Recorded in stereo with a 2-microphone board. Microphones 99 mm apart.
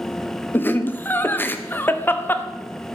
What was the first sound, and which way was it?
Laughter, 20° left (ahead or behind).